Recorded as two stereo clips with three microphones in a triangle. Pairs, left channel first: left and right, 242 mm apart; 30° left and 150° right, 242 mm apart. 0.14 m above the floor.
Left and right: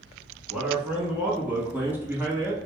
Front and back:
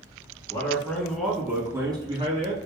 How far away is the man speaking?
About 1.1 m.